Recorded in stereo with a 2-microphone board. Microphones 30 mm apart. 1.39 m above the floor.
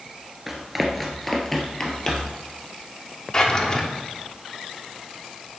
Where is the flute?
No flute in this recording.